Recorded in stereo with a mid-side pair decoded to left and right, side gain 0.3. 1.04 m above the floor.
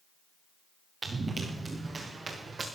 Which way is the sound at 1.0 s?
65° right.